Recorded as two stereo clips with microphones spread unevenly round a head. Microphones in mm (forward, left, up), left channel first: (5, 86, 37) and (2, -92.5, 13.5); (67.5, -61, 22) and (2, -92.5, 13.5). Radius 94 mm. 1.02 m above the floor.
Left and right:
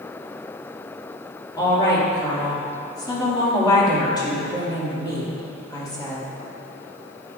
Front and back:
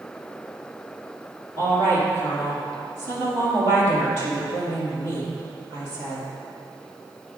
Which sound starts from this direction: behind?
A woman speaking, at 1.6 s.